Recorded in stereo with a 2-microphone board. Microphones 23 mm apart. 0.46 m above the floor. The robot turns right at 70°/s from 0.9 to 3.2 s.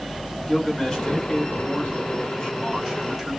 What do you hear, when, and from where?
0.5 s a man speaking: 30° left, 1.5 m; by 3.4 s 165° right, 1.5 m